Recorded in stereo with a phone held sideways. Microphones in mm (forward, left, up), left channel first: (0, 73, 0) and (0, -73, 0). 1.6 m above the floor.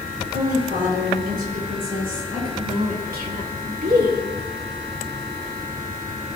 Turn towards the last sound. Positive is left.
turn(degrees=-75)  # may be behind; listen again after turning